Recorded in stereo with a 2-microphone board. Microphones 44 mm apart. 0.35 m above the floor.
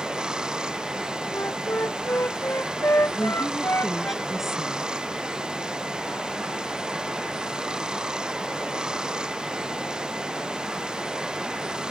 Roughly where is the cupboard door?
No cupboard door in this recording.